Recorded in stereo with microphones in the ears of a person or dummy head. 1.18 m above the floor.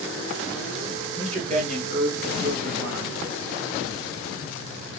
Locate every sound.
1.2 s a man speaking: 35° right (ahead or behind), 1.7 m; by 3.2 s 60° right (ahead or behind), 1.4 m